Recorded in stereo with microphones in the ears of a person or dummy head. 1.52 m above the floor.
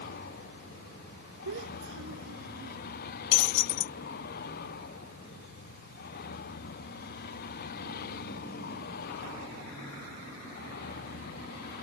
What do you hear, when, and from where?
0.0 s a vehicle: 55° left (ahead or behind)
1.4 s a child speaking: 65° right (ahead or behind)
3.3 s breaking glass: 70° left (ahead or behind)